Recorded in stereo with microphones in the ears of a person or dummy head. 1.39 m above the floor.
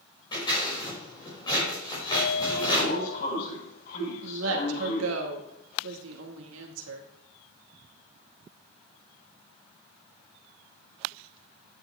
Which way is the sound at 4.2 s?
85° right.